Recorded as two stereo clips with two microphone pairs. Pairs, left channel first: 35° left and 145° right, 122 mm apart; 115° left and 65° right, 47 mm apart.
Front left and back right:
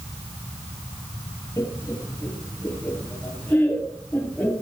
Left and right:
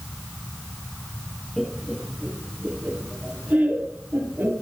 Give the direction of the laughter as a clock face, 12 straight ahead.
10 o'clock.